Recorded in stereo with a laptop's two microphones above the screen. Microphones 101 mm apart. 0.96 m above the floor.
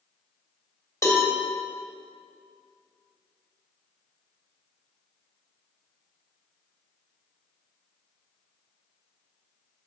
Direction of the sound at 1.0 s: 30° left (ahead or behind).